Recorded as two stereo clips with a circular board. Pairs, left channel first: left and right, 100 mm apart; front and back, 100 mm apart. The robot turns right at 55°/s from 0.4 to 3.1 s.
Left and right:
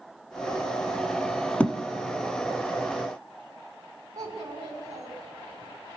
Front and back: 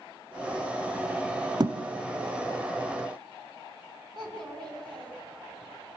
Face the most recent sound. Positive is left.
turn(degrees=-140)